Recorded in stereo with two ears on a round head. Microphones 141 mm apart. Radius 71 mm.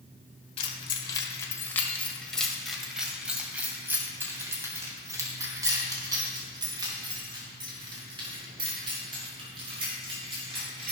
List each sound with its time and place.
0.6 s keys jangling: 35° left (ahead or behind), 1.4 m; by 10.9 s 35° right (ahead or behind), 6 m